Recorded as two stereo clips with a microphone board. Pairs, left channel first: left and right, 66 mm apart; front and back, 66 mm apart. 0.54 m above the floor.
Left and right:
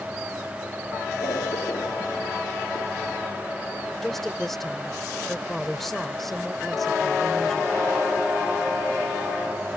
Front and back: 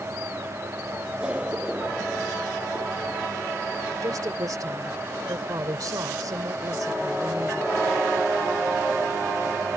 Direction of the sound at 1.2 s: 105° left.